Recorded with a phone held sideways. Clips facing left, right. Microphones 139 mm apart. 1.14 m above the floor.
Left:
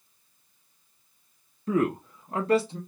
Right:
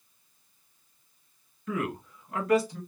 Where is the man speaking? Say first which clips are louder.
Left 7 dB; 35° left (ahead or behind), 0.5 m; by 2.8 s 25° left (ahead or behind), 0.9 m.